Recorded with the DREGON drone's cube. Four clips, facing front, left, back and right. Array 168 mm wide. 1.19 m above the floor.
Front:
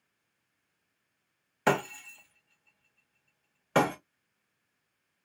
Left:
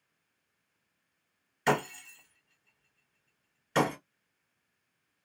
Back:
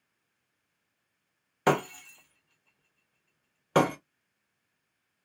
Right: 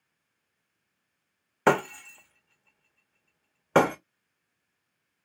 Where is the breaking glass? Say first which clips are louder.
Right 6 dB, back 2 dB; 105° right, 1.0 m.